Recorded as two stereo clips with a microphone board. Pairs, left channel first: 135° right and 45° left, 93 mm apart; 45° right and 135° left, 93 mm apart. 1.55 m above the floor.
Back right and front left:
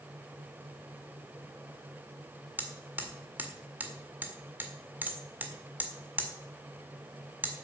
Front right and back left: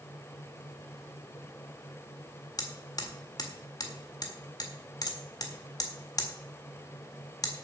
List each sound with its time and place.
2.6 s hammering: 20° right, 1.6 m